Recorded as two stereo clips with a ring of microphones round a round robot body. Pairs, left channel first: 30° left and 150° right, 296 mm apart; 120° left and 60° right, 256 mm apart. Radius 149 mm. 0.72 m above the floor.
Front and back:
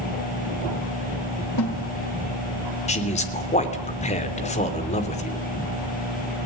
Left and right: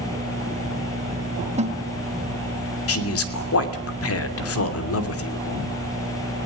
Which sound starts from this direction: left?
A man speaking, at 2.9 s.